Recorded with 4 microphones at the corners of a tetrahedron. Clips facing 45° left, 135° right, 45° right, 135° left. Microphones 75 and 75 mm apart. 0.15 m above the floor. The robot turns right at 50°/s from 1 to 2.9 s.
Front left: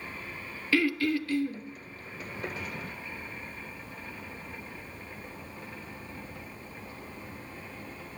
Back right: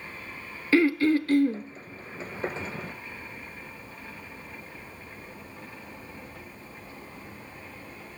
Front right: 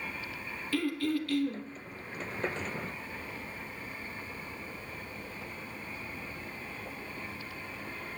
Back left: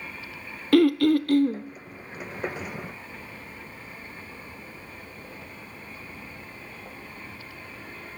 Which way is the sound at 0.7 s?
165° left.